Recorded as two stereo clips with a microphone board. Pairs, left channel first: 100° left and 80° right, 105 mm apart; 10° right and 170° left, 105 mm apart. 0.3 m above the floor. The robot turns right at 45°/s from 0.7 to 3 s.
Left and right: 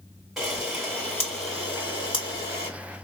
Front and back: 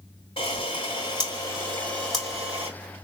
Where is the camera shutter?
10° left, 3 m; by 2.7 s 100° left, 3 m.